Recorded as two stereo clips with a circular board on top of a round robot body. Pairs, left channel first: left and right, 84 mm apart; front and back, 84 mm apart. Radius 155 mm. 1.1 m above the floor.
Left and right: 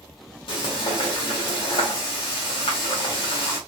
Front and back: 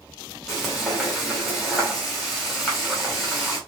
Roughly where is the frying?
Left.